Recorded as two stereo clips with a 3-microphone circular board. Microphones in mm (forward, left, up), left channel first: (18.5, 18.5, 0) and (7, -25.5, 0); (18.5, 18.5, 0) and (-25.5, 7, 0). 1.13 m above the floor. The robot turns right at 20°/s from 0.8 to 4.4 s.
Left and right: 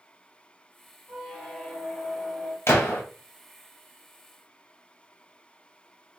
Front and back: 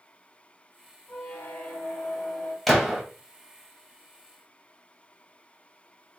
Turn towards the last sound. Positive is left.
turn(degrees=135)